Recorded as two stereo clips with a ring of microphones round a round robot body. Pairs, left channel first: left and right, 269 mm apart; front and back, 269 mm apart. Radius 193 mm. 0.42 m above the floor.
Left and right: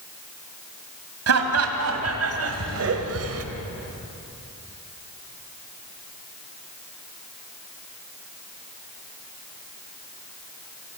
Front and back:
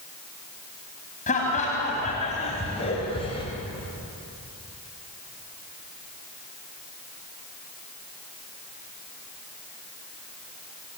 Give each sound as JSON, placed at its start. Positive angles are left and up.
{"t": 1.3, "sound": "laughter", "azimuth_deg": -70, "distance_m": 3.5}